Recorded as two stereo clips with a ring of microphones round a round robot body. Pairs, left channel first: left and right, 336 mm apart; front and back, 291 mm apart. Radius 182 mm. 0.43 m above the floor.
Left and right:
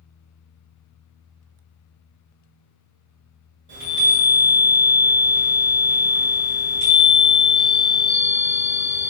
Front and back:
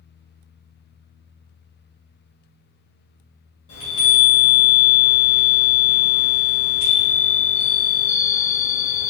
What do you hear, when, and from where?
3.7 s a chime: 40° right, 1.8 m